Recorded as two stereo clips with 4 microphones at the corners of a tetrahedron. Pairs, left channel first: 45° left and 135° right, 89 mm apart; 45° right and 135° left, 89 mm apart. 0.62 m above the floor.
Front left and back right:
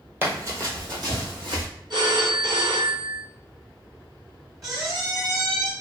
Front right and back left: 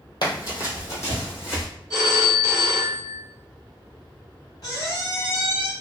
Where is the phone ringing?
100° right, 1.7 m.